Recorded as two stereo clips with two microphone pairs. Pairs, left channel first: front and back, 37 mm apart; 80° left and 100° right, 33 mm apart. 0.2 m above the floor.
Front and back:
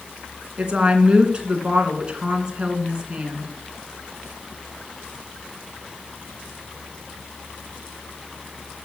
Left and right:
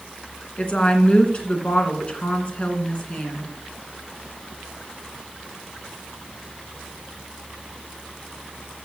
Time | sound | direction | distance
0.6 | a woman speaking | 125° left | 2.5 m